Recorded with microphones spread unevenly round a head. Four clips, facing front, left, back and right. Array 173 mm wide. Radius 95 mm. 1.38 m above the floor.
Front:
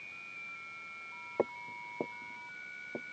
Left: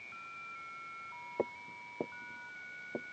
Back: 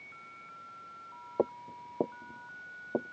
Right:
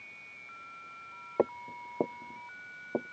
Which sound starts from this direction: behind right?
Footsteps, at 1.4 s.